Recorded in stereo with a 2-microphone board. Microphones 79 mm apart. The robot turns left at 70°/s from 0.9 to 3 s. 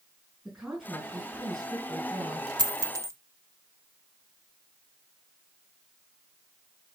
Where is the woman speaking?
10° right, 4.5 m; by 2.5 s 120° right, 4.5 m.